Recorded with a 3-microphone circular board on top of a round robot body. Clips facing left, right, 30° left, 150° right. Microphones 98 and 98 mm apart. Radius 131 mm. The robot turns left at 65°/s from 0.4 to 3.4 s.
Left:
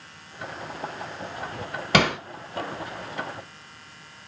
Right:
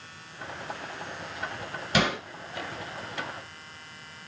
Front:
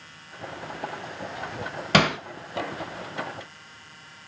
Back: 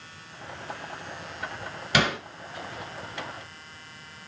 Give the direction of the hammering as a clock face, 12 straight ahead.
10 o'clock.